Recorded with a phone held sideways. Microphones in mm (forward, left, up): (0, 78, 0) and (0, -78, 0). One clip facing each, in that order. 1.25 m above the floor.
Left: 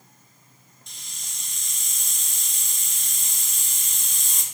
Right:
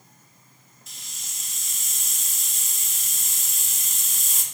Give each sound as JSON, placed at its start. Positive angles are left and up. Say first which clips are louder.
{"t": 0.9, "sound": "a hiss", "louder": "even", "side_deg": -5, "distance_m": 0.8}